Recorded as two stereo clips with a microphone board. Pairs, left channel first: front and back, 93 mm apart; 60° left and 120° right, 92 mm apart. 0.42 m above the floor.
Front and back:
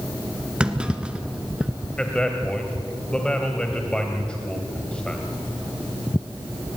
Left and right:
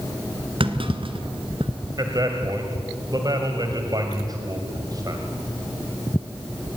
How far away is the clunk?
About 1.8 m.